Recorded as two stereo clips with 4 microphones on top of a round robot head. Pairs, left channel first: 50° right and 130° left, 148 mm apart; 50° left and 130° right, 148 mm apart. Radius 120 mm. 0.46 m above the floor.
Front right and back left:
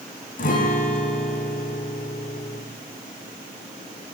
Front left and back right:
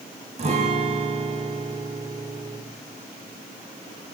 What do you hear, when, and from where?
0.4 s a guitar: 80° right, 7.5 m